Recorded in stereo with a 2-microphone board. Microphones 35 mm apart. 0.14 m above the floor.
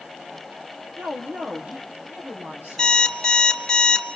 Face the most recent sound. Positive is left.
turn(degrees=15)  # may be behind; listen again after turning